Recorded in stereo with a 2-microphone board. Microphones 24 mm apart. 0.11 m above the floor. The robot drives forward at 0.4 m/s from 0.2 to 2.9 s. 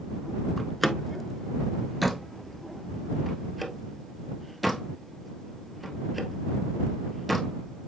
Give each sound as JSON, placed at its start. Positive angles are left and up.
{"t": 0.6, "sound": "a door slam", "side_deg": 10, "distance_m": 0.8}